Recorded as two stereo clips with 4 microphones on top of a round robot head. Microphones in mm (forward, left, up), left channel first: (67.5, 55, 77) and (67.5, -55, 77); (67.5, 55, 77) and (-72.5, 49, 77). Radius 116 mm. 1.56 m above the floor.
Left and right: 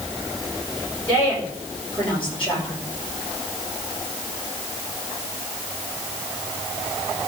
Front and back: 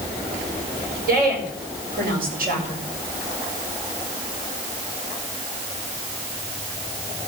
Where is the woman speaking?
170° left, 6 m.